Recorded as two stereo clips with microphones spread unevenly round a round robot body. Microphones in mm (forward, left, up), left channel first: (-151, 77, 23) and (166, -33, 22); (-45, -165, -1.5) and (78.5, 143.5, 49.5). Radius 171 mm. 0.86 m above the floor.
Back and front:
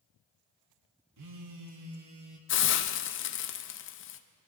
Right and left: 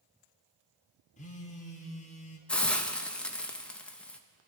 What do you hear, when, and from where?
1.2 s a phone buzzing: 50° right, 1.5 m
2.5 s a hiss: 175° left, 0.6 m